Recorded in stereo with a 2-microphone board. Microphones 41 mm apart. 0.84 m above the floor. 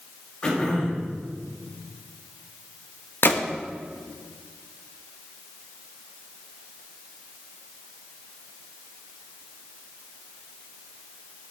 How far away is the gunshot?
About 0.7 m.